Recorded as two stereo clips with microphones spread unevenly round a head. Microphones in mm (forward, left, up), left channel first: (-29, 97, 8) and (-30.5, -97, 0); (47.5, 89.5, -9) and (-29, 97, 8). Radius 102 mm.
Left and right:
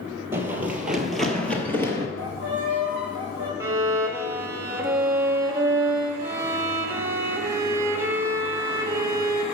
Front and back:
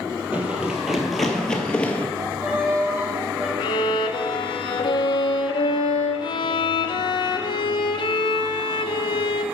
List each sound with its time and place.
0.3 s running footsteps: 160° right, 1.5 m; by 2.1 s 65° left, 1.4 m
2.2 s a violin: 115° left, 4 m
3.6 s a violin: 15° right, 0.6 m